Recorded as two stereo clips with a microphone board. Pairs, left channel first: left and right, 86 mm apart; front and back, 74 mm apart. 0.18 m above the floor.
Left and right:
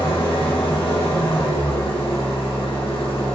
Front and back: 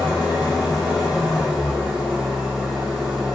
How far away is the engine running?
About 3.5 m.